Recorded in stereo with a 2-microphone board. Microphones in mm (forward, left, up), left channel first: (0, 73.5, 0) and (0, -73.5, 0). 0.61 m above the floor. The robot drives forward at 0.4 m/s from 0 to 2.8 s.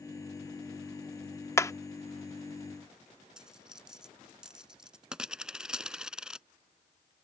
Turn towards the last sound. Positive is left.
turn(degrees=-5)  # may be behind; listen again after turning